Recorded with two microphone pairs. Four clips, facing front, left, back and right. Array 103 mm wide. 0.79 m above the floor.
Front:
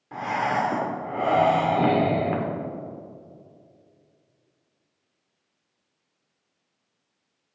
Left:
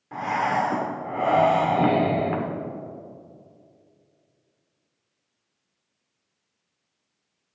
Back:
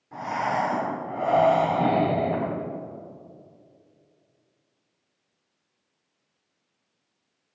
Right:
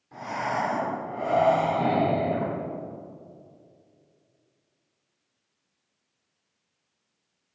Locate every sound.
0.1 s breathing: 50° left, 2.5 m